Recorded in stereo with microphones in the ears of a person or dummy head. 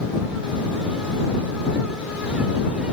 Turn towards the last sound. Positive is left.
No sound to turn to.